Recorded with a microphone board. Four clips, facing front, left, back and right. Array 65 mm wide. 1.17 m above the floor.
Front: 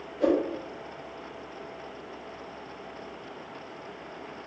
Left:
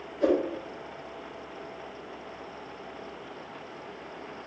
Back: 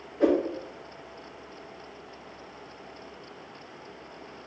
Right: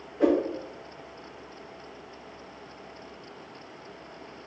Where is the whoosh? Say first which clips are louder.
Right 2 dB, back 1 dB; 120° right, 1.5 m.